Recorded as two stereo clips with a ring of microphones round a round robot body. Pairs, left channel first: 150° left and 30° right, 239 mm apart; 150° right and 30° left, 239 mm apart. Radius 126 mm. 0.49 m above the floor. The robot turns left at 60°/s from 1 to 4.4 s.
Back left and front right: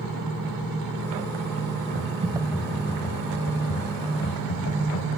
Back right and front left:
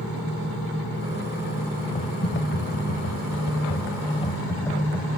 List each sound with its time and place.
1.9 s typing on a keyboard: 80° right, 1.4 m; by 5.1 s 130° left, 1.4 m